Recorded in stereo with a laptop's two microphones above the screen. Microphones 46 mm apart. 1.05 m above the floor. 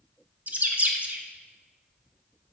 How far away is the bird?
About 1.2 m.